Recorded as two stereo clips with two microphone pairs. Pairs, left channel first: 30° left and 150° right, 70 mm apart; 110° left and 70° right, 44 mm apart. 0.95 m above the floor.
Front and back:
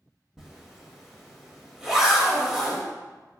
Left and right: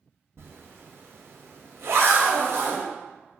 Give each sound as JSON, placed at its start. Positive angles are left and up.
{"t": 0.4, "sound": "a zipper", "azimuth_deg": -65, "distance_m": 0.7}